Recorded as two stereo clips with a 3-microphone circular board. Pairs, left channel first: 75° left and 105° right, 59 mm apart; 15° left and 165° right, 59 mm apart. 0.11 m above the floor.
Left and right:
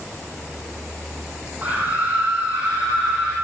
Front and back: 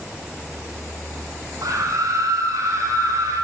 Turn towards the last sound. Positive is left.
turn(degrees=-170)